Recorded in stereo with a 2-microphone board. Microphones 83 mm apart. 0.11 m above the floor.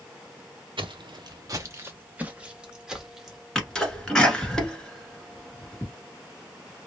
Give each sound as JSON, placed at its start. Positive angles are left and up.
{"t": 0.8, "sound": "footsteps", "side_deg": -80, "distance_m": 0.6}
{"t": 3.5, "sound": "a sneeze", "side_deg": 10, "distance_m": 1.4}